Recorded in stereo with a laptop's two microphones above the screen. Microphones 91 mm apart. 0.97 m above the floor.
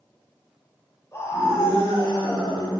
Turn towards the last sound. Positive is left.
turn(degrees=35)  # may be behind; listen again after turning